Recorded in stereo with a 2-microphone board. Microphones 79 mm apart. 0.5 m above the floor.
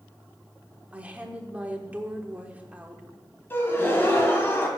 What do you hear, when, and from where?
0.9 s a woman speaking: 20° right (ahead or behind), 1.1 m
3.5 s a gasp: 30° left (ahead or behind), 1.6 m